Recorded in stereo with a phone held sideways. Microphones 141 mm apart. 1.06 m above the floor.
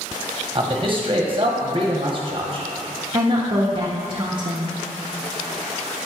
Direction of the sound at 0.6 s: 40° right (ahead or behind).